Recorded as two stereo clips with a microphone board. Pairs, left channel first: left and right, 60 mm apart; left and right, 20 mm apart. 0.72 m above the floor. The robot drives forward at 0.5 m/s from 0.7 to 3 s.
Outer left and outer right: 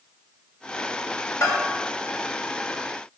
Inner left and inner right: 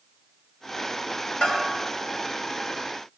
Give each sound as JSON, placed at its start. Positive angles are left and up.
{"t": 1.4, "sound": "a bell", "side_deg": 70, "distance_m": 3.0}